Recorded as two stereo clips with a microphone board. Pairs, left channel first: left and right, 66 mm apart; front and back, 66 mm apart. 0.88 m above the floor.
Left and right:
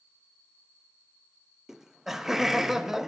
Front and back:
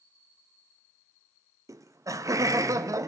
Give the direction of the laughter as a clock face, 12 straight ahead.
6 o'clock.